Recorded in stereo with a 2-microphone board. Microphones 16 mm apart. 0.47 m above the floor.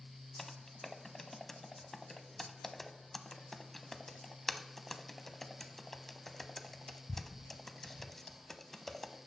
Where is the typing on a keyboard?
20° left (ahead or behind), 0.5 m.